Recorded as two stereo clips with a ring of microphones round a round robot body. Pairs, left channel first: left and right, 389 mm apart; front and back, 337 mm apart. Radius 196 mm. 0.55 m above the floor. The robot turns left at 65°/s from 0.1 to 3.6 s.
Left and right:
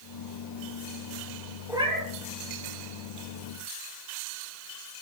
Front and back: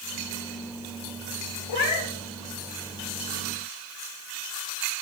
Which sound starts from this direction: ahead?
A cat meowing, at 1.7 s.